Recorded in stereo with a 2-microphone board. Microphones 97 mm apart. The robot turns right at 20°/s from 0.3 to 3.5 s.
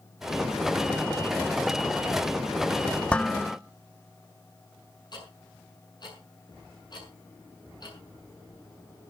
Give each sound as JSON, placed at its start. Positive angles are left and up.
{"t": 3.1, "sound": "dishes clattering", "side_deg": 15, "distance_m": 0.8}
{"t": 5.1, "sound": "ticking", "side_deg": 45, "distance_m": 6.0}